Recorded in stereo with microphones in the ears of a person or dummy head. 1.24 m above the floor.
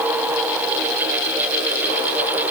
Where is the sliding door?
I don't hear a sliding door.